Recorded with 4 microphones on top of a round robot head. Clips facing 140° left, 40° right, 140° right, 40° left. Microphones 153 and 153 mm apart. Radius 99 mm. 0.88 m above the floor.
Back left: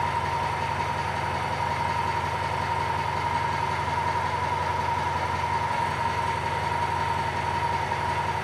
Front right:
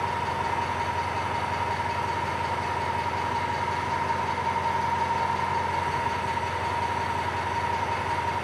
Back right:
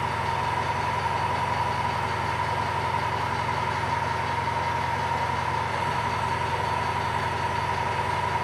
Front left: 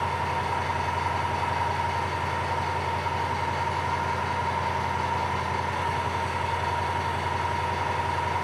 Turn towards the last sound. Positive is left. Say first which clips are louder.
# back left 1 dB, back right 1 dB
turn(degrees=150)